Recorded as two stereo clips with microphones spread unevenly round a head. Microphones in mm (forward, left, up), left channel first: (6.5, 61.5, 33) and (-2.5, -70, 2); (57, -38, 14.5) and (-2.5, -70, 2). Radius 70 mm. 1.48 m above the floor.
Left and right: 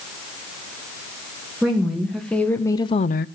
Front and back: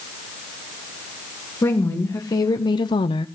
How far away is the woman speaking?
About 2.5 m.